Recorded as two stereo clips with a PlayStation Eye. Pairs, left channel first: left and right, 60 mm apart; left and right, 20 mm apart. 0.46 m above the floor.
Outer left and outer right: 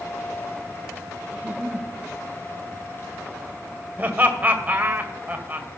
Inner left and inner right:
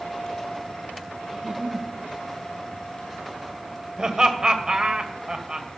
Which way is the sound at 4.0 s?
30° right (ahead or behind).